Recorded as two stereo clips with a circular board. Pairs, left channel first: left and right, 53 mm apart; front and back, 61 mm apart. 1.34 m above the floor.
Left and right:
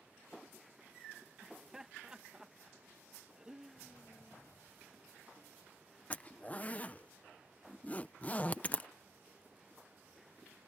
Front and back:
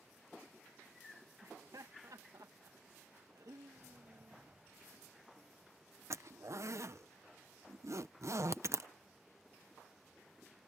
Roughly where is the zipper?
Behind left.